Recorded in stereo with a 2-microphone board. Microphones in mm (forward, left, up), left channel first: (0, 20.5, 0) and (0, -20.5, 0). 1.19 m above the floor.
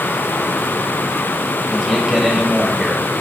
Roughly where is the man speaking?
Centre.